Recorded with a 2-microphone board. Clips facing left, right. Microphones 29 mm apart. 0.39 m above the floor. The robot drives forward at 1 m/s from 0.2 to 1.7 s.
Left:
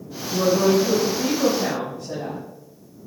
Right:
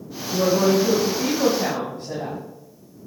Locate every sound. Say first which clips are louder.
0.3 s a woman speaking: even; 65° right (ahead or behind), 1.9 m; by 2.4 s 50° right (ahead or behind), 2.5 m